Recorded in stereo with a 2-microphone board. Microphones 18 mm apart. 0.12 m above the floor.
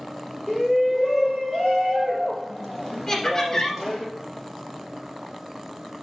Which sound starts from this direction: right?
A shout, at 0.5 s.